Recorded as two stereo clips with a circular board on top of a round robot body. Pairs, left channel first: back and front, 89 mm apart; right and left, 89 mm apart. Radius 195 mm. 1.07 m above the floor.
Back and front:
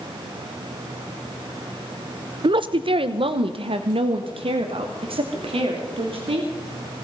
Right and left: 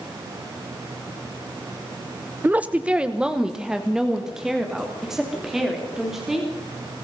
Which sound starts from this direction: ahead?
A woman speaking, at 2.4 s.